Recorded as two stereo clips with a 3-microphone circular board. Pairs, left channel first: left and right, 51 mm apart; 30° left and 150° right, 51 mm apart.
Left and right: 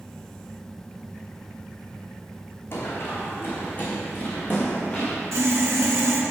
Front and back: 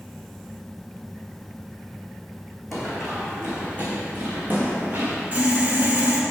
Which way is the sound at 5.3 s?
95° right.